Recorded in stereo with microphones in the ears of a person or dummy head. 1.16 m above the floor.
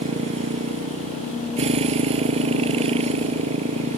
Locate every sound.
0.0 s a motorcycle: 35° right (ahead or behind)